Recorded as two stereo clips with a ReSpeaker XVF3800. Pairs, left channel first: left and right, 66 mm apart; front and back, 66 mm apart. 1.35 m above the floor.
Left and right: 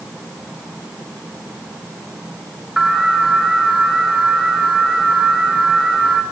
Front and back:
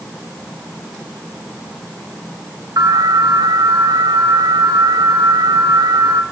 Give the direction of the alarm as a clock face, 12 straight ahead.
6 o'clock.